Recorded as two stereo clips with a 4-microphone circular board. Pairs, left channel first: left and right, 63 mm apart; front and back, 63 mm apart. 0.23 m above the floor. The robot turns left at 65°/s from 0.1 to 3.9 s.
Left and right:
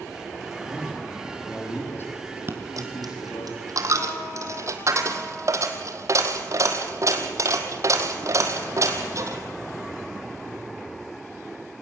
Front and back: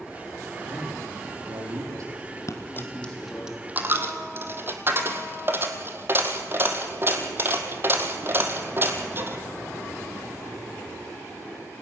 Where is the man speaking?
125° right, 8.5 m; by 3.5 s 50° left, 8.5 m.